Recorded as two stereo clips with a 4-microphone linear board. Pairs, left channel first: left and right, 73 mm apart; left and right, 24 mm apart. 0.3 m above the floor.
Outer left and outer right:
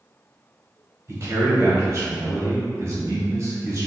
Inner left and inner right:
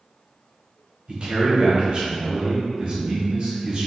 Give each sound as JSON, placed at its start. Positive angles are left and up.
{"t": 1.1, "sound": "a man speaking", "side_deg": -40, "distance_m": 1.2}